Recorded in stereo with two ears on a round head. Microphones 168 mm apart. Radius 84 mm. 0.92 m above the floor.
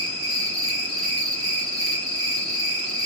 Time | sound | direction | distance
0.0 | an insect | 5° left (ahead or behind) | 2.5 m